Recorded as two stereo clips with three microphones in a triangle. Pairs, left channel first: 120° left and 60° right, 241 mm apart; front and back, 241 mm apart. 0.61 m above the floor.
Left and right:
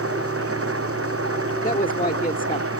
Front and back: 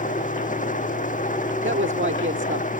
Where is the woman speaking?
170° left.